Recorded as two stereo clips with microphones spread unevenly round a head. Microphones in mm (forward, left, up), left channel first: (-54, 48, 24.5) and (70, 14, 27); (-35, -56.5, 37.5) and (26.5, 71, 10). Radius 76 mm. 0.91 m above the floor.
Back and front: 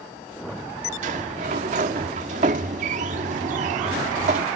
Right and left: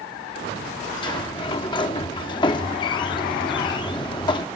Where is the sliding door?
55° right.